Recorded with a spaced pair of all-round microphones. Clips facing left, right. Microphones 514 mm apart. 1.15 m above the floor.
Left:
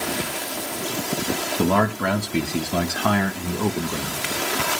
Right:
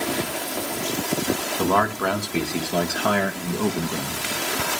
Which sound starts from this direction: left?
A man speaking, at 1.6 s.